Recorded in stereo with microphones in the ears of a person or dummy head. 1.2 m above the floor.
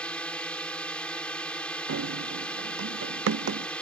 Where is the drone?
5° left (ahead or behind).